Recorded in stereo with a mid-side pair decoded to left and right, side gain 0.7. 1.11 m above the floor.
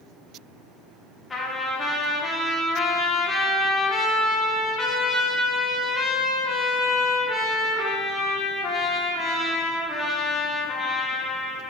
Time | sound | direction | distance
1.3 | a trumpet | 20° left | 0.7 m